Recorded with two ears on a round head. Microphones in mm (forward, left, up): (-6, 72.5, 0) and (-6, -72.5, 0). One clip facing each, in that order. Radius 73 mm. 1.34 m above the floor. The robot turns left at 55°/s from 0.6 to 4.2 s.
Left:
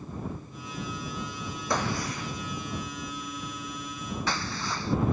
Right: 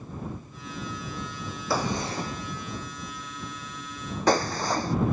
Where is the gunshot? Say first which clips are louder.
Right 2 dB; 5° right (ahead or behind); by 5.0 s 40° right (ahead or behind).